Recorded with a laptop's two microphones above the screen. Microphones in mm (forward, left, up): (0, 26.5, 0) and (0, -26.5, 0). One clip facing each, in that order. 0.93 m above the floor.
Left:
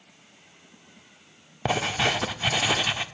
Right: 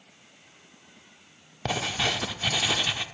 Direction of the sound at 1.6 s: 15° left (ahead or behind).